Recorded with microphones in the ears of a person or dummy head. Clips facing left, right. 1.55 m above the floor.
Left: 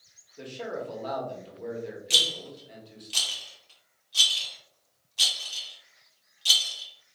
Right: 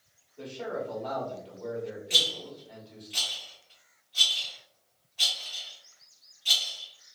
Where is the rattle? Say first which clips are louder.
Even; 65° left (ahead or behind), 1.3 m.